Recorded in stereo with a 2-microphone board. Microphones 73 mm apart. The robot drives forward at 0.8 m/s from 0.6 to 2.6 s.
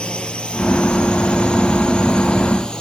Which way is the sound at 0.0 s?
15° left (ahead or behind).